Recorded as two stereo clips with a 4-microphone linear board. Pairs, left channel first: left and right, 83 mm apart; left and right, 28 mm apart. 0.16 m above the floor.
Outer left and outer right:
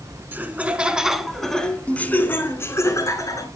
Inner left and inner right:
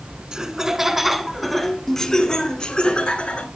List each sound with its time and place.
0.3 s laughter: 25° right (ahead or behind), 1.5 m; by 3.5 s 45° left (ahead or behind), 1.8 m